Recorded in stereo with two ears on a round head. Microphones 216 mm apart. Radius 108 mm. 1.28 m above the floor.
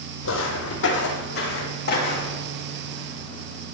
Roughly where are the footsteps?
Left.